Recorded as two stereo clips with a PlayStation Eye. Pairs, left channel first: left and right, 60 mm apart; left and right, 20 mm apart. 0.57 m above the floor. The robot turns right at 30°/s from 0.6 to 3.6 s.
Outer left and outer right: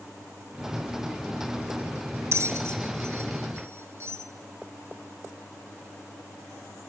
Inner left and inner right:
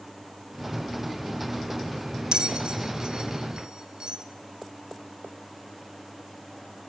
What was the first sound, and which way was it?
A bell, 50° right (ahead or behind).